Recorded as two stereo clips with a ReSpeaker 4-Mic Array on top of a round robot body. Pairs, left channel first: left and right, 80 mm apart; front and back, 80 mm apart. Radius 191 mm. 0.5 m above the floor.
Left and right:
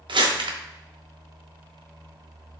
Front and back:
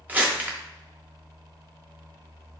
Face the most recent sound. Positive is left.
turn(degrees=-110)